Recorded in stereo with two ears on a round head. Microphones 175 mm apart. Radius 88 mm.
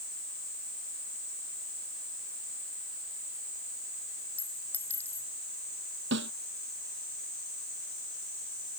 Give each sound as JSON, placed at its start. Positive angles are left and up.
{"t": 4.4, "sound": "a clink", "side_deg": 10}
{"t": 6.1, "sound": "a snare drum", "side_deg": -60}